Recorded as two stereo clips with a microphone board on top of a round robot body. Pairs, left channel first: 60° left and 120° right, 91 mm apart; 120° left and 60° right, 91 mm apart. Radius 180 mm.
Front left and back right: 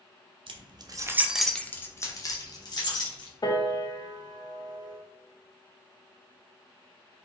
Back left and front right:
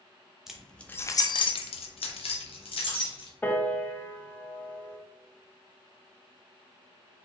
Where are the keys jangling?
145° right, 0.7 m; by 3.3 s 95° left, 1.5 m.